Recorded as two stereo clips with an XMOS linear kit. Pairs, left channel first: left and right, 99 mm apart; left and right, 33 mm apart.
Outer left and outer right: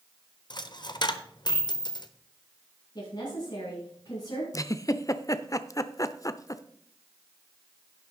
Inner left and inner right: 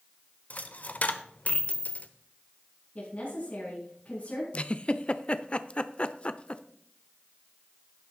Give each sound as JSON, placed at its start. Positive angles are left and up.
{"t": 0.5, "sound": "a dropped coin", "side_deg": 45, "distance_m": 0.9}
{"t": 3.0, "sound": "a woman speaking", "side_deg": 45, "distance_m": 5.5}
{"t": 4.5, "sound": "a giggle", "side_deg": 35, "distance_m": 0.6}